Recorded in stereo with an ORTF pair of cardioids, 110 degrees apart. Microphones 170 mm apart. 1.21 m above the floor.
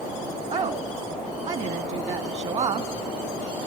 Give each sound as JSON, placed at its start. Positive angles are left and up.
{"t": 0.5, "sound": "a woman speaking", "azimuth_deg": -40, "distance_m": 1.8}